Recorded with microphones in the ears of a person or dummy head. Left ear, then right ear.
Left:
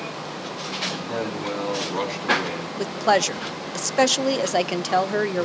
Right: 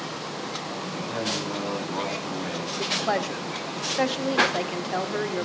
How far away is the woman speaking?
About 0.7 m.